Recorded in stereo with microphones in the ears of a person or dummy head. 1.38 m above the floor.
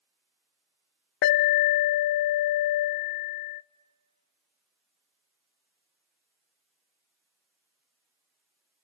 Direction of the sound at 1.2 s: 60° left (ahead or behind).